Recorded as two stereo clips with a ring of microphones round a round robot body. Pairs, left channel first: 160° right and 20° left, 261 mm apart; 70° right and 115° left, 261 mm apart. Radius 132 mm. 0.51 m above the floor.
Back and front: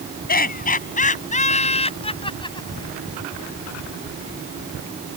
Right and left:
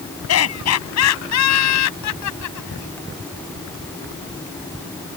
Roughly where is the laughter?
Right.